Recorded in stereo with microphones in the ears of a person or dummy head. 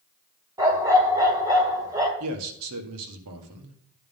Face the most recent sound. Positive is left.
turn(degrees=-75)  # may be behind; listen again after turning